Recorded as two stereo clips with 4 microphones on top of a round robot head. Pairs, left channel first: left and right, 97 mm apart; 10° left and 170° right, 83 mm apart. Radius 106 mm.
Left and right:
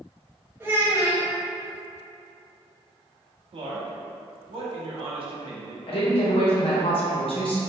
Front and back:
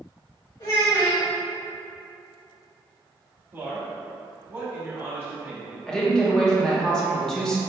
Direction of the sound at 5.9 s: 95° left.